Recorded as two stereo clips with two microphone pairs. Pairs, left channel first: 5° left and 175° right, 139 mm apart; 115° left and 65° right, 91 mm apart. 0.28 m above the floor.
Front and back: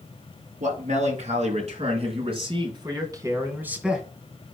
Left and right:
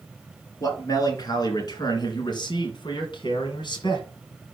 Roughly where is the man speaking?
Behind.